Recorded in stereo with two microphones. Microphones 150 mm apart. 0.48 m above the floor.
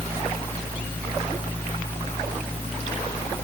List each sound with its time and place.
Only background noise.